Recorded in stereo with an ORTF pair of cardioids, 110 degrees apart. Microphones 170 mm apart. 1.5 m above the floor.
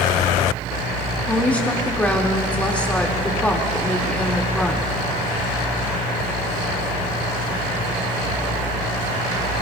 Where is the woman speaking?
10° left, 2.5 m.